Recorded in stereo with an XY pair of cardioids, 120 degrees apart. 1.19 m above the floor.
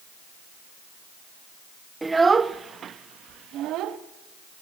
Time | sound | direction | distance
2.0 | a child speaking | 10° right | 0.8 m